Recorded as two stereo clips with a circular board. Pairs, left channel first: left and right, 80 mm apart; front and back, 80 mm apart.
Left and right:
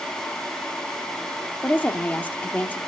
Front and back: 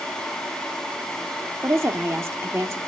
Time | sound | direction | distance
1.6 | a woman speaking | 150° left | 0.9 m